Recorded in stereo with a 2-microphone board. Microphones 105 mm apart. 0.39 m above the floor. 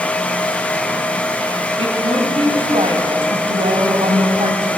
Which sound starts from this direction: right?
A woman speaking, at 1.8 s.